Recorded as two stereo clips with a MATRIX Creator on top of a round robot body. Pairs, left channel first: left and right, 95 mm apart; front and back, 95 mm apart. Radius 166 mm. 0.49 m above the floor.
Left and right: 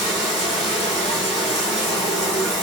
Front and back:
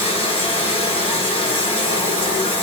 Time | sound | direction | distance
0.0 | running water | 125° left | 0.7 m